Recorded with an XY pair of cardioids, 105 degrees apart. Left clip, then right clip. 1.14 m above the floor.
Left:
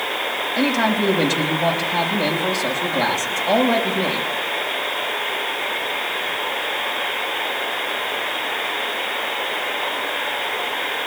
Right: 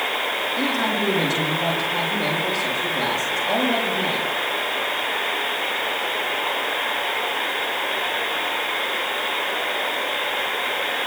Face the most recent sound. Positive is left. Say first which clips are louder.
# left 6 dB
turn(degrees=55)